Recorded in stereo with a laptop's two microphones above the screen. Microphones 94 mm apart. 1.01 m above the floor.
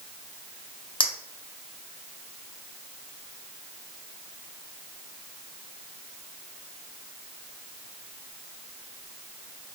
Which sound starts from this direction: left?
A clink, at 1.0 s.